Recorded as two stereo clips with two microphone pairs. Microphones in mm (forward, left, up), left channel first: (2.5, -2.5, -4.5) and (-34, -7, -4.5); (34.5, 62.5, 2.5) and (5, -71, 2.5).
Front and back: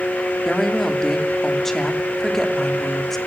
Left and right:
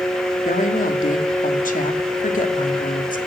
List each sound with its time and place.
0.5 s a woman speaking: 90° left, 2.5 m